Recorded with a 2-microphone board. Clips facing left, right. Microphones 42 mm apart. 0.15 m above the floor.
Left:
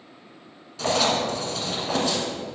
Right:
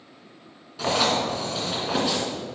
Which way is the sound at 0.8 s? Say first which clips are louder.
Even; 10° right (ahead or behind).